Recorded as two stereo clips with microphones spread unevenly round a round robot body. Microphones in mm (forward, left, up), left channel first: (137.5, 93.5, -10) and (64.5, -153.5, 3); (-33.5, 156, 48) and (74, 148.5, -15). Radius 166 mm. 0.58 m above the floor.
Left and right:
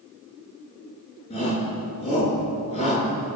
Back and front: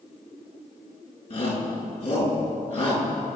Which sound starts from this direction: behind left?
A shout, at 1.3 s.